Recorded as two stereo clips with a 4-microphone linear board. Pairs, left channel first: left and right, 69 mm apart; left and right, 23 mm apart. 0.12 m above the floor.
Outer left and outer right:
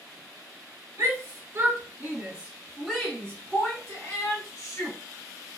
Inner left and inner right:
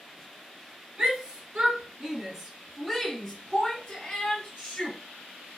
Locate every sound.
1.0 s a shout: 45° right (ahead or behind), 1.5 m; by 5.0 s 50° left (ahead or behind), 1.6 m